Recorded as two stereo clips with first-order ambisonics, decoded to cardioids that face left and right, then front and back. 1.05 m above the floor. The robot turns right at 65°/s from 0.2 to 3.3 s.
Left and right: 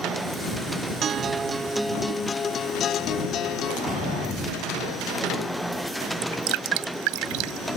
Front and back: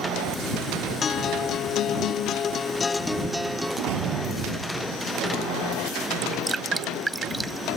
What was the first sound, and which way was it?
A guitar, 55° right.